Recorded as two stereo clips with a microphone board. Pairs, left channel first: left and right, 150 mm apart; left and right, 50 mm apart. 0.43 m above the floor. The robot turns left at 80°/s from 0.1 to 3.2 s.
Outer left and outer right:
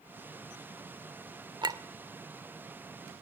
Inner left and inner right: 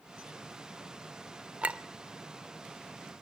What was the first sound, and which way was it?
A clink, 30° right (ahead or behind).